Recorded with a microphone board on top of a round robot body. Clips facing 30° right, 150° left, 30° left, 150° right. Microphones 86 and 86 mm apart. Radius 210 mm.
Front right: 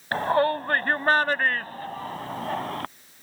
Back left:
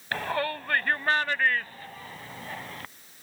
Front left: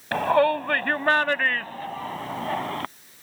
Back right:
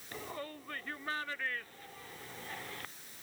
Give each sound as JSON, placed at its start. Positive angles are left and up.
{"t": 0.1, "sound": "a shout", "azimuth_deg": 25}